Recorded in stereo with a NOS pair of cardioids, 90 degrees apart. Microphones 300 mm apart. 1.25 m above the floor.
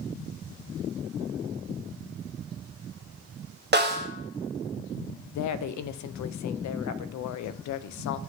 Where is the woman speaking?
70° left, 0.6 m.